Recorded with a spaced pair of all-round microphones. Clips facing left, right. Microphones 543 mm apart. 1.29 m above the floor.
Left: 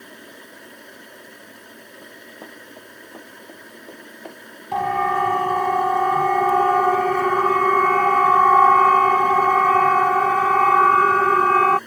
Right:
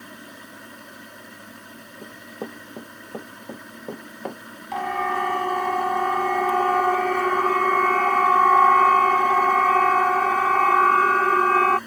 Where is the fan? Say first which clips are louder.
Even; 30° right (ahead or behind).